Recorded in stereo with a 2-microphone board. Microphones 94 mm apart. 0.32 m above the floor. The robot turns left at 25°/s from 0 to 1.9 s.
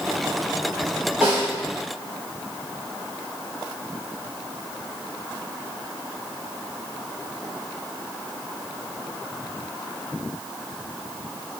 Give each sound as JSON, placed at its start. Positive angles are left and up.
{"t": 1.2, "sound": "a snare drum", "side_deg": -20, "distance_m": 1.4}